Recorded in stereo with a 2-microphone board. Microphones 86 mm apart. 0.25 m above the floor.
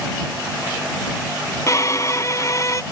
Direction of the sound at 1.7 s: 45° left (ahead or behind).